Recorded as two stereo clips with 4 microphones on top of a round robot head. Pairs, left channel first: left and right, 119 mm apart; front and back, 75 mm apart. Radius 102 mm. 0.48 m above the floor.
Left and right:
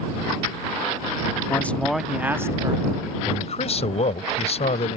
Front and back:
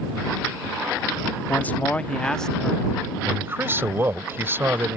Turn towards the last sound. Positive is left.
turn(degrees=120)